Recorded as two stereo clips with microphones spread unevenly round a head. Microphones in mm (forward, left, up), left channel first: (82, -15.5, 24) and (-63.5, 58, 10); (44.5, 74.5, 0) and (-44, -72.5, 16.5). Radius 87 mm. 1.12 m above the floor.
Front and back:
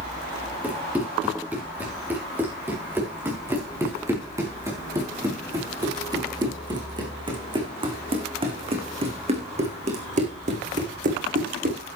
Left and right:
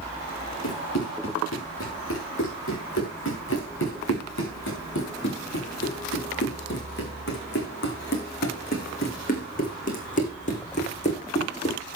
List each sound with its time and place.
0.6 s running footsteps: 70° left, 8.5 m; by 11.8 s 115° left, 4.5 m